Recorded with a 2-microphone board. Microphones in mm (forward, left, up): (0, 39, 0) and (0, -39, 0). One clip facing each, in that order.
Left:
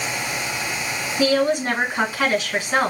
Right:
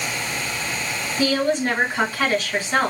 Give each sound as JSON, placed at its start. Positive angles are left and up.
{"t": 1.2, "sound": "a woman speaking", "side_deg": 15, "distance_m": 3.0}